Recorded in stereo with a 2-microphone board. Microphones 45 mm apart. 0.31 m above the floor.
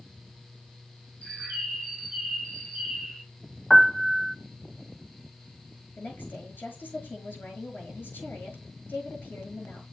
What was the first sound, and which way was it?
A bird, 20° left (ahead or behind).